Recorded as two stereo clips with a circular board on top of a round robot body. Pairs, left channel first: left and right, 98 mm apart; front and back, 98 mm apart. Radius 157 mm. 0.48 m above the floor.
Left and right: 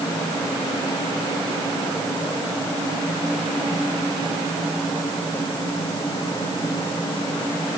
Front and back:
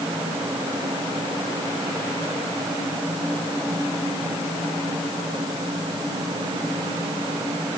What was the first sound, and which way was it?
Only background noise.